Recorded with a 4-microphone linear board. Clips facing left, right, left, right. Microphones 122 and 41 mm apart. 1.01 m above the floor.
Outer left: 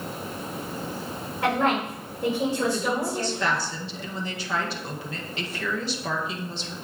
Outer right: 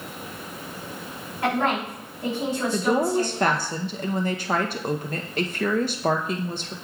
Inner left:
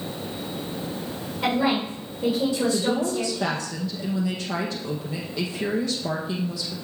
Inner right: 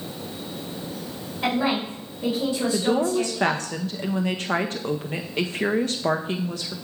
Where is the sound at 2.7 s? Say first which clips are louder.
Outer right 5 dB, inner right 2 dB; 50° right (ahead or behind), 0.5 m.